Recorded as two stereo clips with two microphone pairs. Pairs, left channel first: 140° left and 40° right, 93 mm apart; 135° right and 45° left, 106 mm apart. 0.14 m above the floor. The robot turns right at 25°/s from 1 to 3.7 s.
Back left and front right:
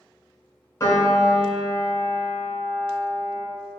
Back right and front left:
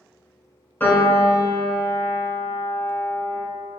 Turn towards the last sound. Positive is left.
turn(degrees=-125)